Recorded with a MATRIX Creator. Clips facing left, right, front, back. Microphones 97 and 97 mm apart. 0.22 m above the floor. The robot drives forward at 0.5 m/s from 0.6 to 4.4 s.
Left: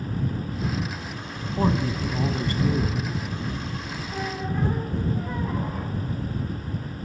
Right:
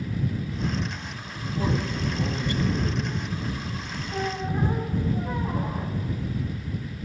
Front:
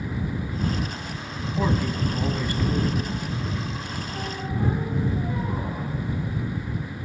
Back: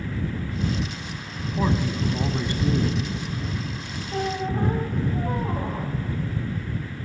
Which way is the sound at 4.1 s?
165° right.